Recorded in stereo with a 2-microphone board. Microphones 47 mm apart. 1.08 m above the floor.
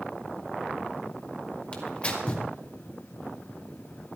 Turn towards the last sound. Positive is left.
turn(degrees=25)  # may be behind; listen again after turning